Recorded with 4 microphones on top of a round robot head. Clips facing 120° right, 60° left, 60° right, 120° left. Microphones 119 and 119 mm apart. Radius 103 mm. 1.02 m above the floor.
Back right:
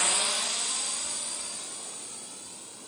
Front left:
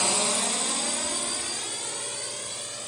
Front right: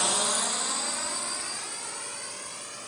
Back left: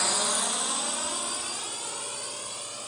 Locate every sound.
0.0 s a drone: 20° left; by 2.9 s 50° left